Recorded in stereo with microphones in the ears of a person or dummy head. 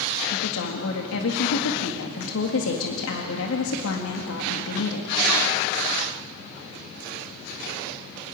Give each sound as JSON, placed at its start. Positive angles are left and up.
{"t": 0.3, "sound": "a woman speaking", "side_deg": 75, "distance_m": 1.8}